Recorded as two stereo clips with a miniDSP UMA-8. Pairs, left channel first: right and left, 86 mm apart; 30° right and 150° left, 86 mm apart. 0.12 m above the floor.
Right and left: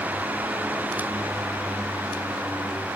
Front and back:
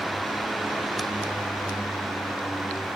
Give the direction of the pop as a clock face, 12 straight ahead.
I don't hear a pop.